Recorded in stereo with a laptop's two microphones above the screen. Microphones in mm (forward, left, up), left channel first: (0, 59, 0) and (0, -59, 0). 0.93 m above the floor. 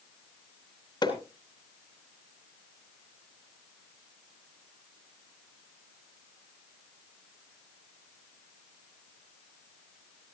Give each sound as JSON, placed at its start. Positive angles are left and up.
{"t": 1.0, "sound": "hammering", "side_deg": 35, "distance_m": 4.0}